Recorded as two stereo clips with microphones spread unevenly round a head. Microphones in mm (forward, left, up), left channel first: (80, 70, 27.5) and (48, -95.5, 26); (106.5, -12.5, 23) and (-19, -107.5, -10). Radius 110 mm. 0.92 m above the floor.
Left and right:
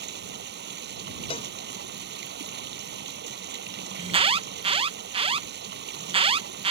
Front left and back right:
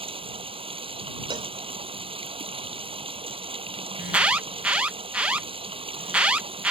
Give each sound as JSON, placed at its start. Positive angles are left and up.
{"t": 0.0, "sound": "running water", "azimuth_deg": -90}
{"t": 1.3, "sound": "a cowbell", "azimuth_deg": 145}
{"t": 4.0, "sound": "an alarm", "azimuth_deg": -80}